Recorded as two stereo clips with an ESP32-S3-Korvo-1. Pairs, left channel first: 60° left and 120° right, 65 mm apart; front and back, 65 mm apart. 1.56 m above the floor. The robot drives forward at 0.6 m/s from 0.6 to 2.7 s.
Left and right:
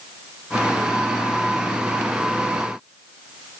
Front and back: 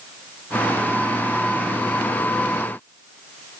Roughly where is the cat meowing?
I don't hear a cat meowing.